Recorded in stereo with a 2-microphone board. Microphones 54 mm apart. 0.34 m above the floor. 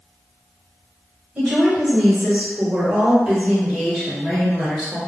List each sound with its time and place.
1.4 s a woman speaking: 25° right (ahead or behind), 1.9 m; by 5.0 s centre (ahead or behind), 2.5 m